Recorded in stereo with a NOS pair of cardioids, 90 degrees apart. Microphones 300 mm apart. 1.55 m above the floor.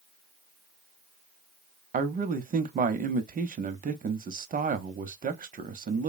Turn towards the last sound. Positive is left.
turn(degrees=-30)